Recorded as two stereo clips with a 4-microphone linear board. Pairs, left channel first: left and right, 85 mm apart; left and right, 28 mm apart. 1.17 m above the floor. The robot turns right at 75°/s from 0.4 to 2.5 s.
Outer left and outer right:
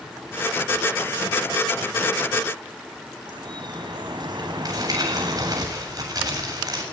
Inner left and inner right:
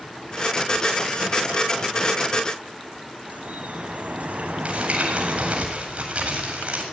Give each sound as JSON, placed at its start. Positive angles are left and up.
{"t": 3.2, "sound": "dripping", "side_deg": -55, "distance_m": 4.5}
{"t": 4.7, "sound": "crumpling", "side_deg": -45, "distance_m": 8.0}